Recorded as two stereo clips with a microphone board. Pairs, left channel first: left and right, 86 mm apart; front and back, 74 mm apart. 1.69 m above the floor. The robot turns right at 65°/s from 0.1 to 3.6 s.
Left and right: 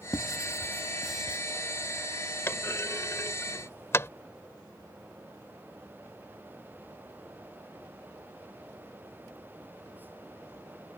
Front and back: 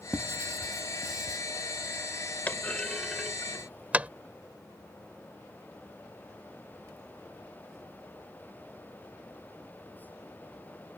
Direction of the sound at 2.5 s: 50° left.